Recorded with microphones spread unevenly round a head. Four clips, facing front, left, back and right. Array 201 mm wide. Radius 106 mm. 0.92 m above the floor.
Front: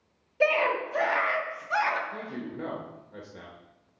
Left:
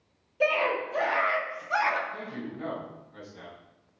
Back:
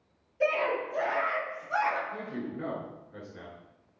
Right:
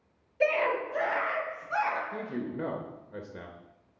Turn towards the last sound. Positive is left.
turn(degrees=-75)